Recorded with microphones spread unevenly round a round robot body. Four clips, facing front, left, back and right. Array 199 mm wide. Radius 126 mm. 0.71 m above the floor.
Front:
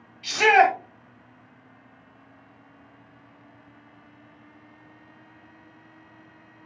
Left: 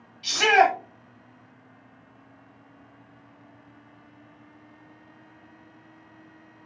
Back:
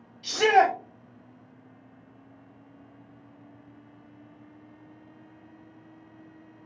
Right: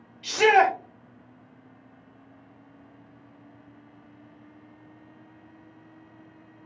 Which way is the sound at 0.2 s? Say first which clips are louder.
Even, front 2 dB; 130° right.